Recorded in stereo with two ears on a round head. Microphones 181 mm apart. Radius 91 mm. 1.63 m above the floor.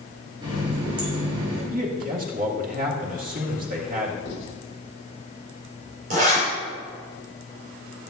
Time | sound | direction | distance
0.4 | a running tap | 25° right (ahead or behind) | 4.5 m
1.7 | a man speaking | 45° right (ahead or behind) | 2 m
4.2 | writing | 60° left (ahead or behind) | 4.5 m
6.1 | a zipper | 40° right (ahead or behind) | 5.5 m